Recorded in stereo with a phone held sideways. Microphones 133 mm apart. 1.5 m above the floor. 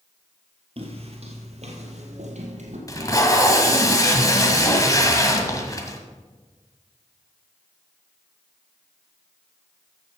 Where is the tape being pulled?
25° left (ahead or behind), 1.5 m.